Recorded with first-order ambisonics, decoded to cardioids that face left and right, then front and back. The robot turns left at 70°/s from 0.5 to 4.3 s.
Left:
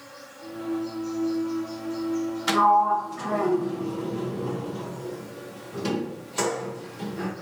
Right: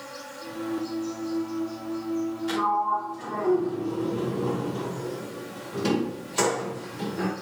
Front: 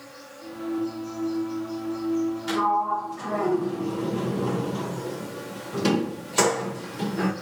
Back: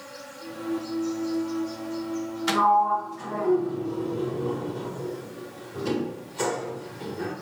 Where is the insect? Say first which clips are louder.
Right 4 dB, back 2 dB; 115° right, 5.5 m; by 7.4 s 20° right, 5.5 m.